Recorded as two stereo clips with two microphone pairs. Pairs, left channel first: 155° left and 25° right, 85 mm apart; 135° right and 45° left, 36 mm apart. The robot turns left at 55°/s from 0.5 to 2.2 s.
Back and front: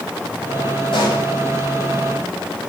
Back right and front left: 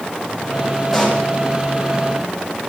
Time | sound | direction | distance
0.9 | a pop | 135° left | 7 m